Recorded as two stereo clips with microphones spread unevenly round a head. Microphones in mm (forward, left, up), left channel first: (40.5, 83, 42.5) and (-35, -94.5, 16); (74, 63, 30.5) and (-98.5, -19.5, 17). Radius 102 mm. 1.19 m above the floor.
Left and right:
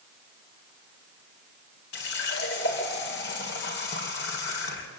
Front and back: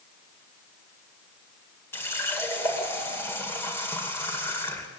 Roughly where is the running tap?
Left.